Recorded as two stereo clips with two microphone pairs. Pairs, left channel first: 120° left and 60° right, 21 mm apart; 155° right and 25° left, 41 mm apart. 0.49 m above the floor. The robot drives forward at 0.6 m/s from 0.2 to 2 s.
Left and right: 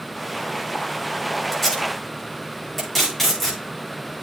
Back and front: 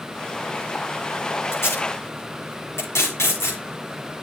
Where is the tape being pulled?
155° right, 6.5 m; by 3.6 s 160° right, 7 m.